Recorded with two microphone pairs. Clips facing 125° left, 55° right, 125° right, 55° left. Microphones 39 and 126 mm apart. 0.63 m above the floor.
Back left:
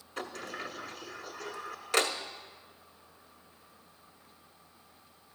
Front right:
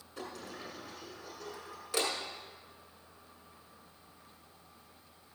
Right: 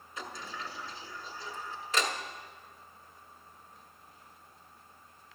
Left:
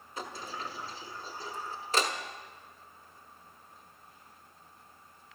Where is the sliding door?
110° left, 1.1 m.